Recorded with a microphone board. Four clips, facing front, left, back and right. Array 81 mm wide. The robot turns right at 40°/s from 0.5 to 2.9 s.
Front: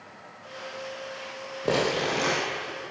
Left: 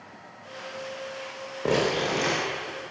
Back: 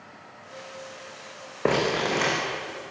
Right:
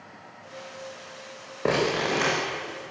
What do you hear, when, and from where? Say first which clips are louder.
1.6 s crumpling: even, back 2 dB; 160° right, 8 m; by 2.3 s 135° right, 8 m